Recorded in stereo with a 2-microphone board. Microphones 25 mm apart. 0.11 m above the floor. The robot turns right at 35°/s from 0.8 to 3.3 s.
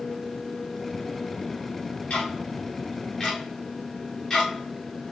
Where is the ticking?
60° left (ahead or behind), 4 m; by 4.5 s 20° left (ahead or behind), 4 m.